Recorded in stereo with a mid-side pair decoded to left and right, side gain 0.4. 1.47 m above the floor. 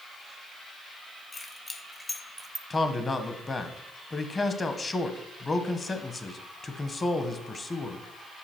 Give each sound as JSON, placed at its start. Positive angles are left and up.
{"t": 1.3, "sound": "keys jangling", "azimuth_deg": 35, "distance_m": 1.4}
{"t": 2.7, "sound": "a man speaking", "azimuth_deg": 30, "distance_m": 1.0}